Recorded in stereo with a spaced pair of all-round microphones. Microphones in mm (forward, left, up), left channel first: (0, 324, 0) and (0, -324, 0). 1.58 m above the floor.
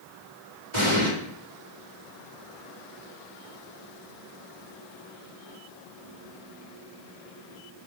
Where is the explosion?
70° right (ahead or behind), 3.5 m.